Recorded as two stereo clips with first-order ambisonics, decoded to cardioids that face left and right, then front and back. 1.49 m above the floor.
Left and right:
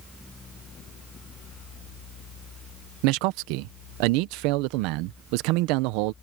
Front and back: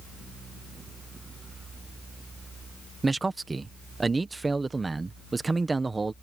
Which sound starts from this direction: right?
A man speaking, at 3.0 s.